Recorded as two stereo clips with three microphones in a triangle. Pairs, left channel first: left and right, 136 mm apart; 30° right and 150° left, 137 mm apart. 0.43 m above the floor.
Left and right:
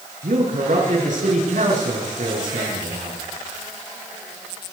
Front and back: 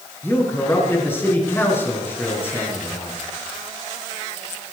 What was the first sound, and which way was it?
A man speaking, 105° right.